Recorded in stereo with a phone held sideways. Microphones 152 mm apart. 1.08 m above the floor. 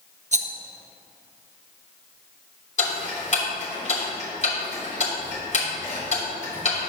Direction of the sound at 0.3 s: 50° right (ahead or behind).